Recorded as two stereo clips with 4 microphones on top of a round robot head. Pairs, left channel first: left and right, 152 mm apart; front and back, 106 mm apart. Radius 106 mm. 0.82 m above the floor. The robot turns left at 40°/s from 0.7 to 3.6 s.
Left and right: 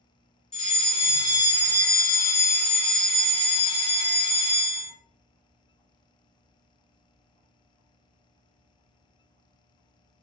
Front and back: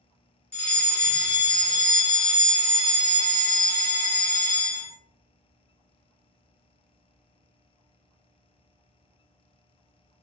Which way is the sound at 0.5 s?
70° left.